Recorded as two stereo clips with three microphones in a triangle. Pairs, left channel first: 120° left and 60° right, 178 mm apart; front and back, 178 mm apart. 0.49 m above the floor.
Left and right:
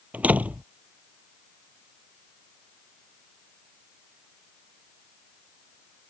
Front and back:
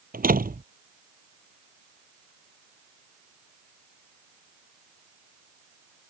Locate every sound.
0.1 s a door slam: 140° right